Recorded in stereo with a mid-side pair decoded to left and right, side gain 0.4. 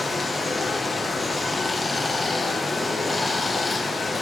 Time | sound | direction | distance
0.0 | running water | 25° left | 0.8 m